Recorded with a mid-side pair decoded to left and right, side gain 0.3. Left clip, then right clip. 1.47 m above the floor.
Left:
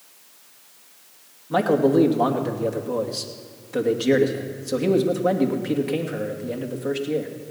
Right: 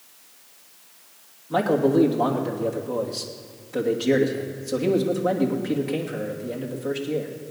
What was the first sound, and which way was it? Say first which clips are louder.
A man speaking: left 2 dB; 30° left.